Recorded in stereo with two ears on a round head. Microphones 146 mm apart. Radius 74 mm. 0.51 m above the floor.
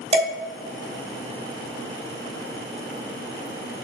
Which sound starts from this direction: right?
Dishes clattering, at 0.1 s.